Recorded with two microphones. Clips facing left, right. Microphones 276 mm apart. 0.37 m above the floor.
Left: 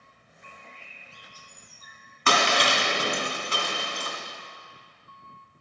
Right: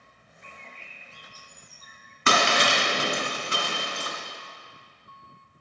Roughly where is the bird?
Centre.